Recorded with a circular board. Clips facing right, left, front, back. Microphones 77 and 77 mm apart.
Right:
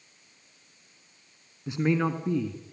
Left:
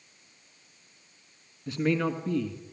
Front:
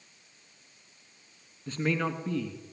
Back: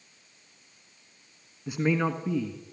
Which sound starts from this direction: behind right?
A man speaking, at 1.7 s.